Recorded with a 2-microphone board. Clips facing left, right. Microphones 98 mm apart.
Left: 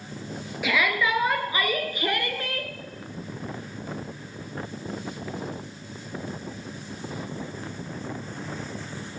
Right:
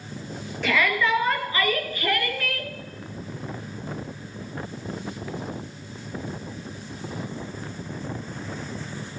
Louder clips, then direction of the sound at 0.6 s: Right 2 dB; 10° left (ahead or behind).